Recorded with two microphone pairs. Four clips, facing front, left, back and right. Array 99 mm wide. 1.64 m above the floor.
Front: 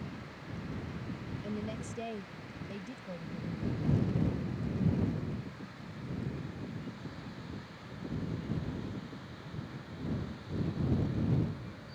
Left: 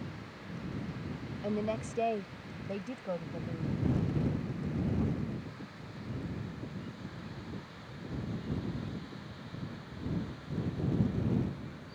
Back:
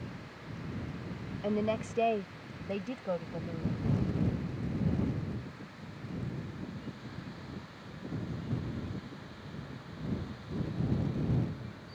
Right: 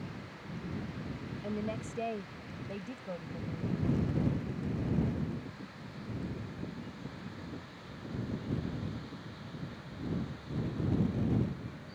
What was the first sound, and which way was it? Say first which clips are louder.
A woman speaking: left 4 dB, back 10 dB; 155° left.